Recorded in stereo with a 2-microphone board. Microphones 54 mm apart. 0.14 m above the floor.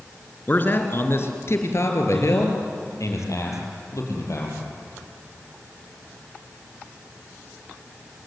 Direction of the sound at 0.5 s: 35° left (ahead or behind).